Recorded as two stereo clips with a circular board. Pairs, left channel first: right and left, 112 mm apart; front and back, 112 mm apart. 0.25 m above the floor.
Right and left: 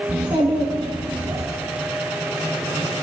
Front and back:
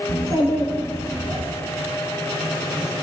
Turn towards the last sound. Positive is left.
turn(degrees=105)